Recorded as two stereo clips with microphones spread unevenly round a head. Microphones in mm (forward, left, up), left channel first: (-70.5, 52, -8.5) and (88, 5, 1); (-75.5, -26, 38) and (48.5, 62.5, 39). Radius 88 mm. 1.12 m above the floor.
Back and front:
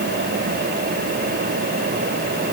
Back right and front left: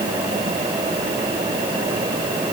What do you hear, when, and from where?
Only background noise.